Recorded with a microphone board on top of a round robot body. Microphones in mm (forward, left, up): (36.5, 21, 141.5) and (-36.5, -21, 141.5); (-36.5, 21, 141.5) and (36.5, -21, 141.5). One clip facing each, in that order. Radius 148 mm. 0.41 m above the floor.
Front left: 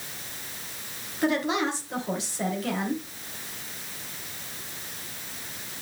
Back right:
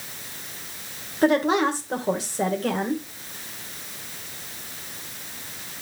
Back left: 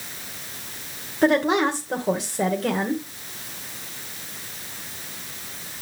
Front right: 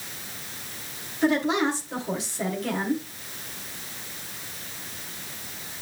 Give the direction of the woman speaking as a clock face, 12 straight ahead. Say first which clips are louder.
Back right 6 dB, back left 4 dB; 6 o'clock.